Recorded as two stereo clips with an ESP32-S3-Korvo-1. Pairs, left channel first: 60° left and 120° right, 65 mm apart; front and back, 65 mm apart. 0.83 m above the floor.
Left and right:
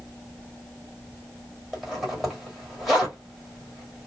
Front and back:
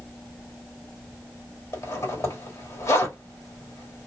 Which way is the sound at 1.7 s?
30° right.